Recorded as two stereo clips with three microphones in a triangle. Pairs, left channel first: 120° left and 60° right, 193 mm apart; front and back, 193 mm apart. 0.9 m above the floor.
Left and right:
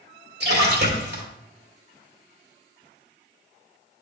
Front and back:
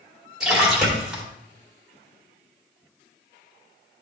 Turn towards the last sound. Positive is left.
turn(degrees=-95)